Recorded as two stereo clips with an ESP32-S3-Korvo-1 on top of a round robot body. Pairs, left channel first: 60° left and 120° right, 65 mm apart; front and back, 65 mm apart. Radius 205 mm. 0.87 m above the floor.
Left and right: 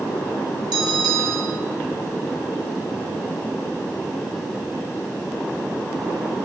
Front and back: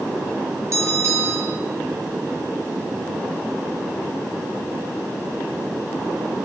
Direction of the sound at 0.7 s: 135° right.